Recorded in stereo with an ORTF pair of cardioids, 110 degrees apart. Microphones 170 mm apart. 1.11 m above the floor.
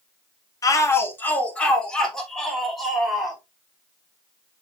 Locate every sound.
0.6 s a shout: 20° left, 1.9 m; by 3.4 s straight ahead, 5 m